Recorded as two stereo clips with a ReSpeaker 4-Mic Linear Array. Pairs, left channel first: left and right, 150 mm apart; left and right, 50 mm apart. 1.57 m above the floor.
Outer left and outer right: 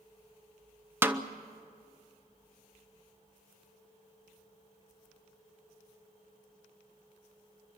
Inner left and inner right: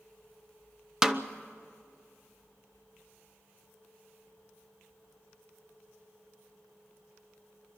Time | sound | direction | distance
1.0 | a snare drum | 15° right (ahead or behind) | 0.7 m